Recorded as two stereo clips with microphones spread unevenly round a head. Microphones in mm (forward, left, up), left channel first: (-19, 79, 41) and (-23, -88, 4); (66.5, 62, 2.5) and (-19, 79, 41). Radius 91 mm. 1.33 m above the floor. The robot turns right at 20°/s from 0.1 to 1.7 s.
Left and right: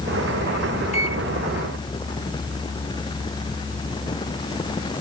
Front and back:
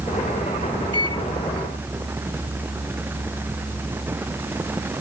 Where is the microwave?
140° left; by 1.2 s 145° left.